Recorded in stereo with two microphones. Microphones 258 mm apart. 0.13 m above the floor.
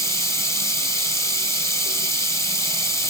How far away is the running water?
About 3.5 m.